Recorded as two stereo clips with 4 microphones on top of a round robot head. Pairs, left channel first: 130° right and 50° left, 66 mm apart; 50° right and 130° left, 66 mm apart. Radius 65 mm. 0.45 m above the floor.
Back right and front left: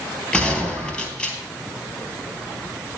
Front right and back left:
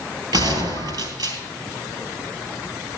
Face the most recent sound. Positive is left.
turn(degrees=160)